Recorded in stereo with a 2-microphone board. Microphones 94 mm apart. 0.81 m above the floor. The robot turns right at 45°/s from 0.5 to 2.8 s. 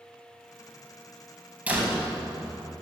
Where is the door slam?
165° right, 3.5 m; by 2.7 s 120° right, 3.5 m.